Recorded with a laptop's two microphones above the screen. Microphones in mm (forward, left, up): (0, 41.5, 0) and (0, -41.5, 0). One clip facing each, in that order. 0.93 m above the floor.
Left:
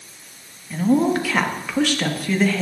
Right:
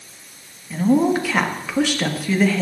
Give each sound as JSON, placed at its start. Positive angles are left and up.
{"t": 0.7, "sound": "a woman speaking", "side_deg": -5, "distance_m": 1.2}